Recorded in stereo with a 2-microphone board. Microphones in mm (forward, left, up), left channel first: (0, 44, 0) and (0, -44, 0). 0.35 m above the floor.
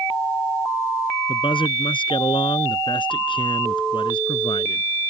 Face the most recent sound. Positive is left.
turn(degrees=75)  # may be behind; listen again after turning